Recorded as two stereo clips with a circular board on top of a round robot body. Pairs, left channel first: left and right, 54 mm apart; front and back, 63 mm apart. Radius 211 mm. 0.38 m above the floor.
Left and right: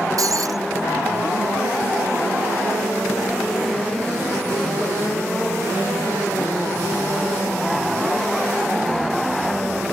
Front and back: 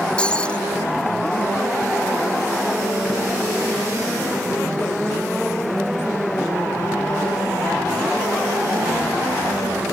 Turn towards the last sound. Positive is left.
turn(degrees=-75)